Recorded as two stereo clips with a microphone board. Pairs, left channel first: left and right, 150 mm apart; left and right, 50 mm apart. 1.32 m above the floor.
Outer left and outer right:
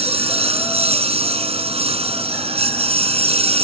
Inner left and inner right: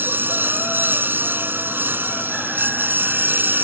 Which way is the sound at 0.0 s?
40° right (ahead or behind).